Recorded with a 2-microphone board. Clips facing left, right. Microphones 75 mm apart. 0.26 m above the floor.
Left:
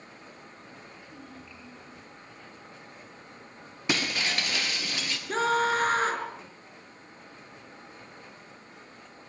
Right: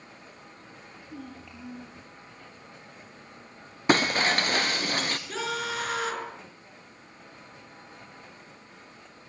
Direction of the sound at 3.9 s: 45° right (ahead or behind).